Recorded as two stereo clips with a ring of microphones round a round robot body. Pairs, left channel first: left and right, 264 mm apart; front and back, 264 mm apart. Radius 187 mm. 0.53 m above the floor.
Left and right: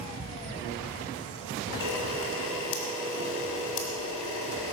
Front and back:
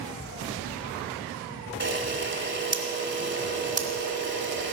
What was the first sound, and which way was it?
A camera shutter, 130° left.